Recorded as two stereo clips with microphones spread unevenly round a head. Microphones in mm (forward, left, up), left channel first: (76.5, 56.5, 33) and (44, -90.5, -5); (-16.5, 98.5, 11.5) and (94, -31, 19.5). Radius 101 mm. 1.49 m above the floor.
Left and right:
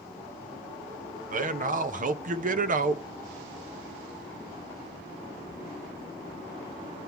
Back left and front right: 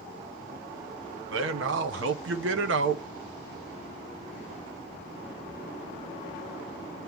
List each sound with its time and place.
1.3 s a man speaking: 75° right, 1.1 m